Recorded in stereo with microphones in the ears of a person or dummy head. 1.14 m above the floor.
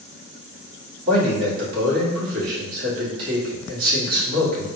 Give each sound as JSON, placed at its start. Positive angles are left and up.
{"t": 1.1, "sound": "a man speaking", "side_deg": -45, "distance_m": 2.0}